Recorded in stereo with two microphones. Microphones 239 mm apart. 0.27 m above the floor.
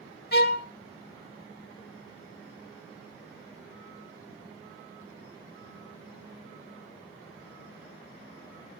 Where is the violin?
45° left (ahead or behind), 0.8 m.